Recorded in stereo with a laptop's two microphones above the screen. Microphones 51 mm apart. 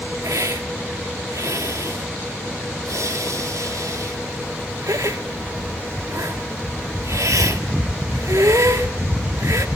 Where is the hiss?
80° right, 1.1 m.